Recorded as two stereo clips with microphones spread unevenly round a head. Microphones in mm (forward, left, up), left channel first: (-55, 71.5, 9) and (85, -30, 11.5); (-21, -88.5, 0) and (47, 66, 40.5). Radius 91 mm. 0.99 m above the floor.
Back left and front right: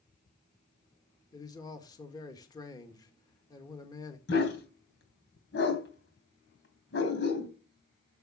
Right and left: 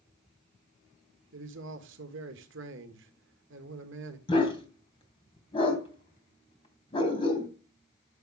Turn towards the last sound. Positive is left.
turn(degrees=180)